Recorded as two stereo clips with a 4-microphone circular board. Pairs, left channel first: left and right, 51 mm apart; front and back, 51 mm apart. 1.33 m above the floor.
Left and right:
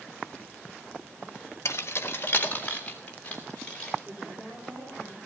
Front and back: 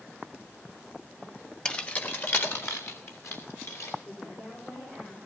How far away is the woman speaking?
About 5 m.